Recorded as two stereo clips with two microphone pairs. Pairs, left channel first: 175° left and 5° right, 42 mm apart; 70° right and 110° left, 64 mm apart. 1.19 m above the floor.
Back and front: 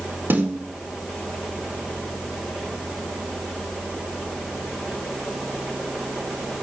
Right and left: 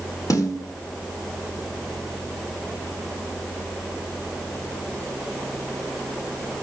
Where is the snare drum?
45° right, 4.5 m.